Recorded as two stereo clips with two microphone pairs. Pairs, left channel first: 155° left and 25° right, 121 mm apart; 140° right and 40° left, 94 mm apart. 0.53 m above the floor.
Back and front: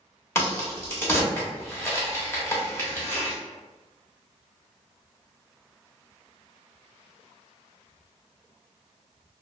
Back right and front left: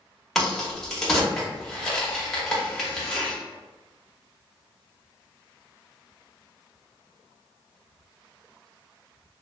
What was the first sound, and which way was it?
A crack, 145° left.